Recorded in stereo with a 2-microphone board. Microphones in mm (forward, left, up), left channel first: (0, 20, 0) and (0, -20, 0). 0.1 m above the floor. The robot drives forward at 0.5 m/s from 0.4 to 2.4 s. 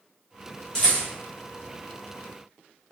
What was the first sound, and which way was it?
A rattle, 15° left (ahead or behind).